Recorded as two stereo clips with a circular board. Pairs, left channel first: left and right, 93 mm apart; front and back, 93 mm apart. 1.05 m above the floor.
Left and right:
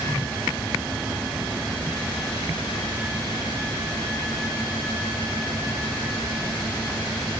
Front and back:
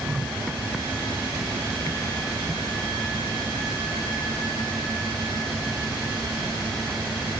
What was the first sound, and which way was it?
Only background noise.